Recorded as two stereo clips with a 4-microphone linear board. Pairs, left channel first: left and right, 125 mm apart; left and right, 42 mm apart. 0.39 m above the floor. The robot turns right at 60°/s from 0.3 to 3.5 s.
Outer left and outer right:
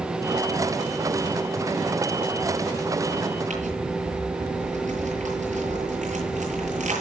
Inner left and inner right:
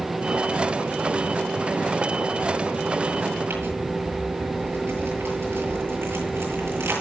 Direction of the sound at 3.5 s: 80° right.